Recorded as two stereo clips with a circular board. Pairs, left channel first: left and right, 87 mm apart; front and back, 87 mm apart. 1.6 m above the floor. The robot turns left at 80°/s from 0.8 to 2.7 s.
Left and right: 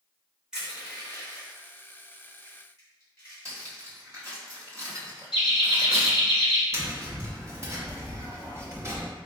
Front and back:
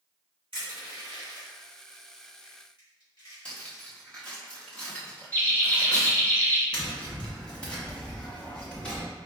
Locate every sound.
0.5 s crushing: 170° right, 1.9 m; by 3.8 s 35° left, 1.9 m
3.5 s cutlery clinking: 65° right, 1.1 m
5.3 s laughter: 70° left, 1.4 m
6.7 s tapping: 70° right, 0.9 m